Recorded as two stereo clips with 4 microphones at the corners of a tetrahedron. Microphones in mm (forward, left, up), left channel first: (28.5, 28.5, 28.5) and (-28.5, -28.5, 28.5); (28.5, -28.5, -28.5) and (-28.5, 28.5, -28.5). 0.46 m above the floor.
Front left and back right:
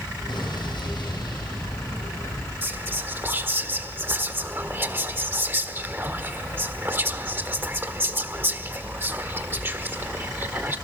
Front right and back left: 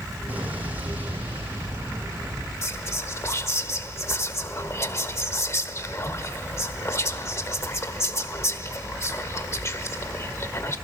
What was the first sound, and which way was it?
An explosion, 65° left.